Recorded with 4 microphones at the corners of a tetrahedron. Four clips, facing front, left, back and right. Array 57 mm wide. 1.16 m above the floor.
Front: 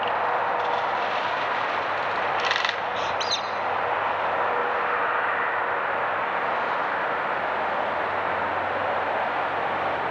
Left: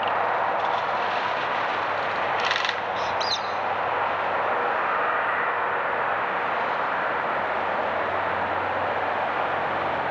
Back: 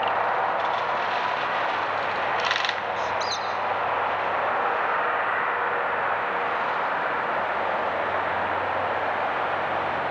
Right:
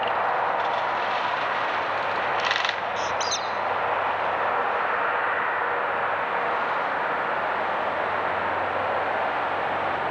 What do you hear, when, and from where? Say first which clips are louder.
3.0 s a squeak: even, even; 10° right, 2.0 m